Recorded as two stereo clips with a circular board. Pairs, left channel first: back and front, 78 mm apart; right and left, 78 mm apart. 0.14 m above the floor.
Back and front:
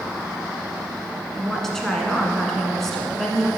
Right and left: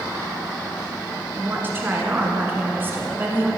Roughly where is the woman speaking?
Left.